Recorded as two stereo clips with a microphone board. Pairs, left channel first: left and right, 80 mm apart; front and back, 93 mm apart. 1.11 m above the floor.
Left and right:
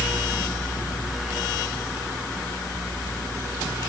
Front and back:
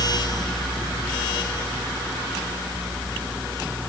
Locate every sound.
Only background noise.